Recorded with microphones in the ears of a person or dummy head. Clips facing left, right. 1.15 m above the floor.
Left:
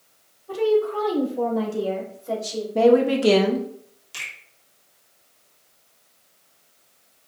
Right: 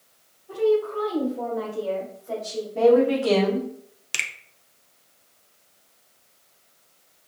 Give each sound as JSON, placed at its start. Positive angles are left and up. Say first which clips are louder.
{"t": 0.5, "sound": "a woman speaking", "louder": "left 1 dB", "side_deg": 80, "distance_m": 2.5}
{"t": 2.8, "sound": "a woman speaking", "louder": "left 1 dB", "side_deg": 60, "distance_m": 1.2}
{"t": 4.1, "sound": "a finger snap", "louder": "right 5 dB", "side_deg": -75, "distance_m": 0.8}